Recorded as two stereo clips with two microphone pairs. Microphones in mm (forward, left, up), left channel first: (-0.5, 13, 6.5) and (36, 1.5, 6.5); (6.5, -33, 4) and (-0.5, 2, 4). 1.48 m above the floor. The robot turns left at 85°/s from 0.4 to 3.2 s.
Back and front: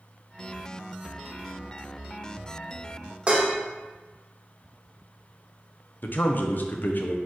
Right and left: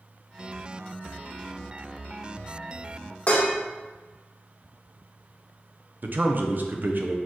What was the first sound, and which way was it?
Dishes clattering, 60° right.